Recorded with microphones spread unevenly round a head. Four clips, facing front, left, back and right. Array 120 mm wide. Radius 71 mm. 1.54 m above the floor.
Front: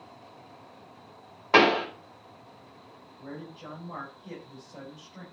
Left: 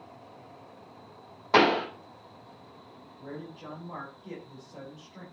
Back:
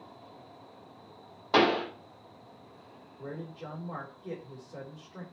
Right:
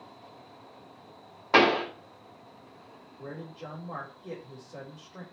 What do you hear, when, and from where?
1.5 s a pop: 25° right, 3 m
3.2 s a man speaking: 150° right, 4.5 m